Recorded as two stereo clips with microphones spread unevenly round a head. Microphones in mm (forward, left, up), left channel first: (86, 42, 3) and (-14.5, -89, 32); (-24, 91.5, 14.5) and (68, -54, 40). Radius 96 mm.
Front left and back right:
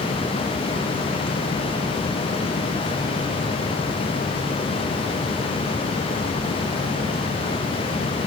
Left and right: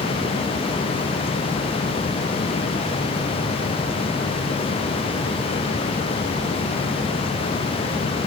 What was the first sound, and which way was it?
Only background noise.